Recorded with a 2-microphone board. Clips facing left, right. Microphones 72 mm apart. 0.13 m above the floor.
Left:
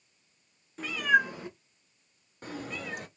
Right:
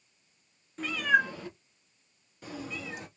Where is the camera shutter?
I don't hear a camera shutter.